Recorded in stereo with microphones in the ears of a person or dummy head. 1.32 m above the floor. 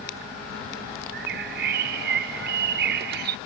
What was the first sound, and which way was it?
A bird, 60° right (ahead or behind).